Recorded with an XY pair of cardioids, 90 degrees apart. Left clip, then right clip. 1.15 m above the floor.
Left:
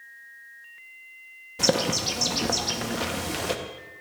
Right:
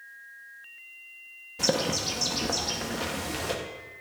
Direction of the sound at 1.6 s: 30° left.